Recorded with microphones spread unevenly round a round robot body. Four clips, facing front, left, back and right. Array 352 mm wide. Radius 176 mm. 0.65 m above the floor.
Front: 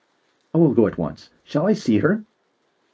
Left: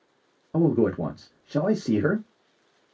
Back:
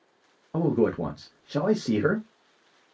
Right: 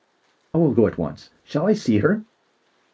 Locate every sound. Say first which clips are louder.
0.5 s a man speaking: right 4 dB, front 7 dB; 35° right, 0.6 m